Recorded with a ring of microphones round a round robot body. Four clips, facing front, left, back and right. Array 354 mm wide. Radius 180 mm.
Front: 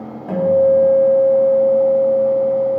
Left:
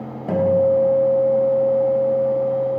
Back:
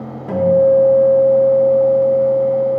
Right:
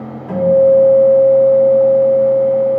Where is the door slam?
I don't hear a door slam.